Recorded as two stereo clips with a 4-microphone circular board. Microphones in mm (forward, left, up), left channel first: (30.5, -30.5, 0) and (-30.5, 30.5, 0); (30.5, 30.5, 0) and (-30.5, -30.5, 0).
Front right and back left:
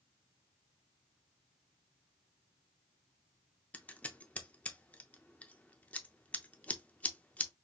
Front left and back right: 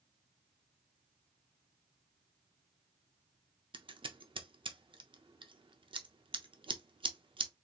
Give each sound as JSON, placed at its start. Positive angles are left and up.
{"t": 3.7, "sound": "scissors", "azimuth_deg": -120, "distance_m": 0.5}